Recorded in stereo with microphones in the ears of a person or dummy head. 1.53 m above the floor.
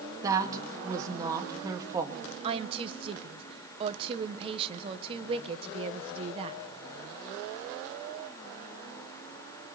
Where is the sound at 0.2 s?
20° right (ahead or behind), 2 m.